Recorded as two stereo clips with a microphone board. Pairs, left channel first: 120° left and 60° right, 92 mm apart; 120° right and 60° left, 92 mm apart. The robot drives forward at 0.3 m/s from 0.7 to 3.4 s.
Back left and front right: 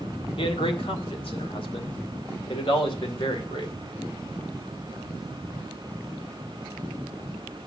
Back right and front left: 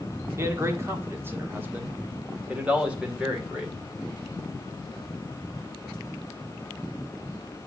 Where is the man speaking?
120° left, 1.5 m; by 3.7 s 140° left, 2 m.